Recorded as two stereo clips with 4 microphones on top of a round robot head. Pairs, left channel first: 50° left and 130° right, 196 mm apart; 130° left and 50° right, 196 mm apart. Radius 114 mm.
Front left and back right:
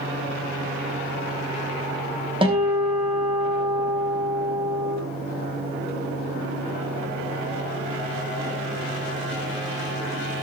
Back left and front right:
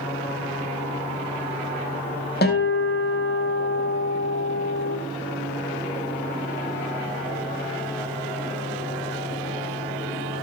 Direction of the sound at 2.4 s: 165° left.